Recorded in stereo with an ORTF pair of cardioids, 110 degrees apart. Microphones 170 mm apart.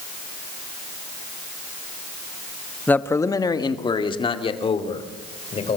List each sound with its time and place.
2.9 s a man speaking: 10° left, 1.0 m; by 5.8 s 35° left, 4 m